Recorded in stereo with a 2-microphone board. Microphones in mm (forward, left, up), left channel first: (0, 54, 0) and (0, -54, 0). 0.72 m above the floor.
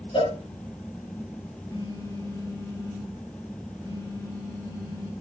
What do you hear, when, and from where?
0.1 s a cowbell: 55° left (ahead or behind), 2 m
1.7 s a phone buzzing: 35° left (ahead or behind), 3 m